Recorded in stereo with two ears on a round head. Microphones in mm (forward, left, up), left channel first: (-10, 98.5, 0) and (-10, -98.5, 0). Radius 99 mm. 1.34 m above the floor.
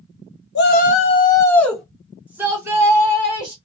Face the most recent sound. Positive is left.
turn(degrees=-20)  # may be behind; listen again after turning